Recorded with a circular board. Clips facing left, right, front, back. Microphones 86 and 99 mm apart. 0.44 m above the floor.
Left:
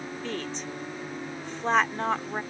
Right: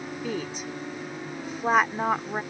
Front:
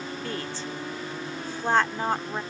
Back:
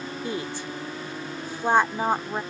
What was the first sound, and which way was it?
A woman speaking, 145° right.